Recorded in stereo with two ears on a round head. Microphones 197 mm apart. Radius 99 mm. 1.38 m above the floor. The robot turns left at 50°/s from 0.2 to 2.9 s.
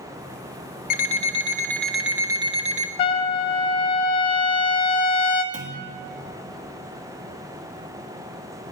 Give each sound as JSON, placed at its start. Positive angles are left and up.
{"t": 0.9, "sound": "an alarm clock", "azimuth_deg": 50, "distance_m": 0.8}
{"t": 3.0, "sound": "a trumpet", "side_deg": 25, "distance_m": 0.9}
{"t": 5.5, "sound": "a clunk", "side_deg": -40, "distance_m": 1.5}